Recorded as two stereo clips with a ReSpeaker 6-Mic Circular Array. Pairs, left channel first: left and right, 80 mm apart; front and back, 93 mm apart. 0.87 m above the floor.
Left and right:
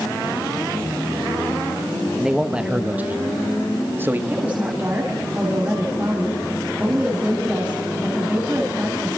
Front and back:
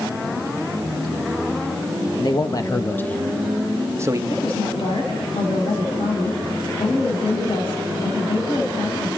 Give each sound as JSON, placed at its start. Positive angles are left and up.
{"t": 2.2, "sound": "a man speaking", "azimuth_deg": -10, "distance_m": 1.4}
{"t": 4.3, "sound": "a woman speaking", "azimuth_deg": -15, "distance_m": 5.0}